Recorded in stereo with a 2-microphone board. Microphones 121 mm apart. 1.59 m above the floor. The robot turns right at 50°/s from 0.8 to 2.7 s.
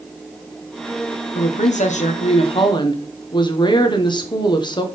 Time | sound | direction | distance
1.4 | a woman speaking | 75° left | 1.1 m